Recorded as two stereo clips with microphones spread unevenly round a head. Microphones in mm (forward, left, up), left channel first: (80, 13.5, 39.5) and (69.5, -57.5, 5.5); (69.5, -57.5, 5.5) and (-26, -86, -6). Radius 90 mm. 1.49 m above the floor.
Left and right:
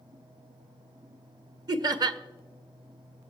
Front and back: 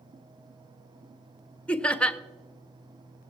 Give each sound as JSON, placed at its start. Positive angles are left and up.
{"t": 1.7, "sound": "laughter", "azimuth_deg": -60, "distance_m": 0.9}